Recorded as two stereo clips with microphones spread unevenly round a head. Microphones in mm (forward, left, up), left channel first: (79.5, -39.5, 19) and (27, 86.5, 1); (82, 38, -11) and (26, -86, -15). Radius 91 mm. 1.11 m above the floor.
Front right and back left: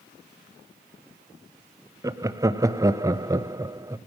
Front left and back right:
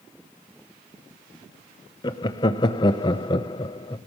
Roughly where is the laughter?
Left.